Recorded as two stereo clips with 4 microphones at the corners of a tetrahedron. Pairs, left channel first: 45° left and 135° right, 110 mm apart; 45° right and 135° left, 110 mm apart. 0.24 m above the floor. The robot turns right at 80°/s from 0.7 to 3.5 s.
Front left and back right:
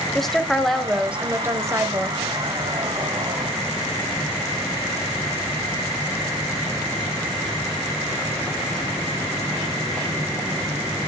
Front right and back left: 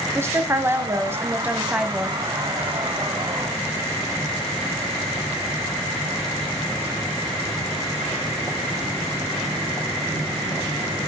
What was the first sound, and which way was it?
A woman speaking, 125° left.